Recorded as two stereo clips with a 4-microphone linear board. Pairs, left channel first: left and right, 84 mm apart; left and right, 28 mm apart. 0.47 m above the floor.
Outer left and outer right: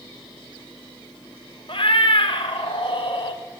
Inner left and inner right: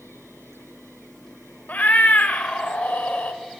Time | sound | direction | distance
1.7 | a cat meowing | 80° left | 0.6 m